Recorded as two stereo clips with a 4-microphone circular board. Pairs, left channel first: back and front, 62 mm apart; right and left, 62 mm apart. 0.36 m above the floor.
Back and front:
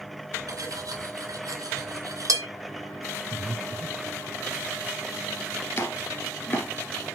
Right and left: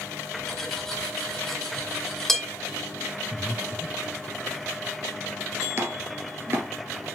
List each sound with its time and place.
0.5 s cutlery clinking: 5° right, 2.5 m
3.3 s breathing: 5° right, 1.3 m
5.8 s chopping: 135° left, 1.8 m